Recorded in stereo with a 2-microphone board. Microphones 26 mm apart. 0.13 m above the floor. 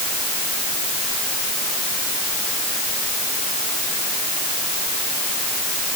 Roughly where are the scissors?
No scissors in this recording.